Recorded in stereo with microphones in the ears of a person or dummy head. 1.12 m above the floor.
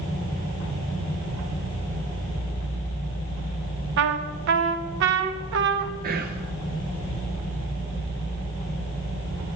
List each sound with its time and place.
4.0 s a trumpet: 70° right (ahead or behind), 1.0 m
6.0 s whispering: 45° right (ahead or behind), 1.0 m